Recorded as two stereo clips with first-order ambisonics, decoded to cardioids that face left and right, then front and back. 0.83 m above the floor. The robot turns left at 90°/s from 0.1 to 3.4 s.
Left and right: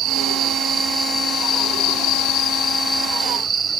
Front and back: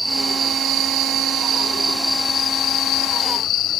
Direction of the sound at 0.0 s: 95° right.